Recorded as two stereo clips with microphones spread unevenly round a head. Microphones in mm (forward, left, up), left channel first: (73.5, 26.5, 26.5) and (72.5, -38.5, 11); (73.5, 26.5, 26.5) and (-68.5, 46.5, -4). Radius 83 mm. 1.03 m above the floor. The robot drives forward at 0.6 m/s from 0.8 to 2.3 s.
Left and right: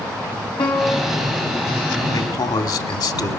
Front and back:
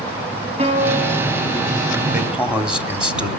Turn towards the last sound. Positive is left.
turn(degrees=90)